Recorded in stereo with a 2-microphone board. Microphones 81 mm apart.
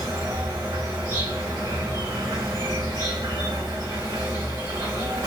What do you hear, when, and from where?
0.0 s an insect: 40° right (ahead or behind), 1.9 m